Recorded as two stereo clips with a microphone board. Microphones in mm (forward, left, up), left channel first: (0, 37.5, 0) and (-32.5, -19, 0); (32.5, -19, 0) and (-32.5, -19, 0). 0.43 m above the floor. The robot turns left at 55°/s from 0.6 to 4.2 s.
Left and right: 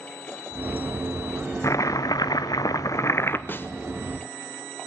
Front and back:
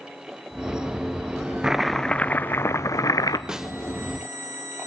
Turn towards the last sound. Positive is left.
turn(degrees=70)